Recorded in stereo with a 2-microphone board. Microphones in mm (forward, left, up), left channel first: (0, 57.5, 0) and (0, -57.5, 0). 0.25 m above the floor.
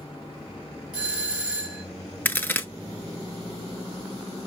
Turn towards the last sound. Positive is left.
turn(degrees=20)  # may be behind; listen again after turning